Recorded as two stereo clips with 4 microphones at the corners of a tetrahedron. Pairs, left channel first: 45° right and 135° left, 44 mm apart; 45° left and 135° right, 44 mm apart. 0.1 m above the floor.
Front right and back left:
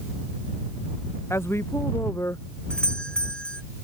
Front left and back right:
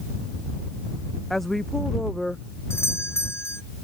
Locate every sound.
1.3 s a woman speaking: 40° right; by 2.5 s 45° right
2.7 s a doorbell: 25° left